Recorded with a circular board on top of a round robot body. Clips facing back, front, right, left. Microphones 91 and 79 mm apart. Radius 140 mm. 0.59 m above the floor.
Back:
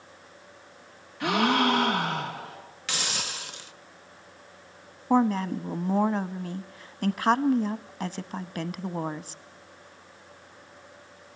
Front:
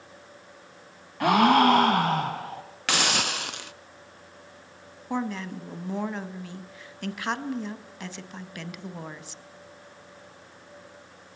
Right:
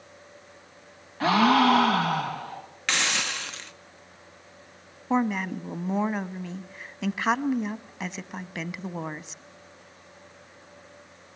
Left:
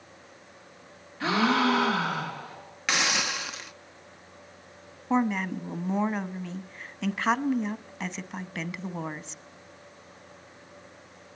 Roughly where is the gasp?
Ahead right.